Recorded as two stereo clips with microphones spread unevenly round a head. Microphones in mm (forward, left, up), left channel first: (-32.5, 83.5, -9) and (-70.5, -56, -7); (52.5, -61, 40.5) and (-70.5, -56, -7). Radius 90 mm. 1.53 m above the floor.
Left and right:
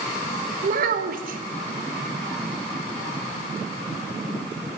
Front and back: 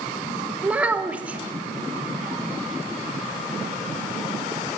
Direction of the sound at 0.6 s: 95° right.